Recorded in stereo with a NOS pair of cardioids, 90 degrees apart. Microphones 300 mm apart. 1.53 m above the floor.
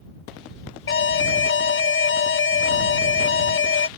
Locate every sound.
0.9 s an alarm: 45° left